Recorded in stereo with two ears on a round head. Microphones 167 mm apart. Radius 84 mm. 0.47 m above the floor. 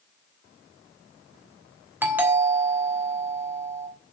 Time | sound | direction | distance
2.0 | a doorbell | 10° right (ahead or behind) | 1.9 m